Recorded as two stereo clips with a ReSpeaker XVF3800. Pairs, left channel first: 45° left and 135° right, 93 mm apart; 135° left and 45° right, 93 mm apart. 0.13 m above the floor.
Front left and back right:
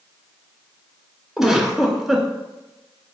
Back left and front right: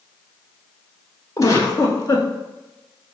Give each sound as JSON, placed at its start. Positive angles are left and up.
{"t": 1.4, "sound": "a giggle", "azimuth_deg": 145, "distance_m": 0.6}